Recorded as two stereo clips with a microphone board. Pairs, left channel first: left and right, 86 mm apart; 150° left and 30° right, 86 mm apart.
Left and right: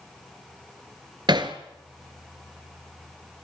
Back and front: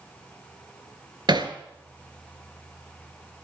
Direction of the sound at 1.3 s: 60° right.